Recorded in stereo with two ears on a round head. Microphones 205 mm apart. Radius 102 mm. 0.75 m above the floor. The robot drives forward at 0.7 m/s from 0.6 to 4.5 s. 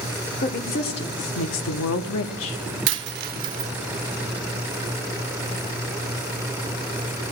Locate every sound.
0.4 s a woman speaking: 40° left (ahead or behind), 1.5 m; by 2.6 s 65° left (ahead or behind), 1.1 m
2.9 s a dropped coin: 55° right (ahead or behind), 0.6 m; by 3.7 s 30° right (ahead or behind), 0.9 m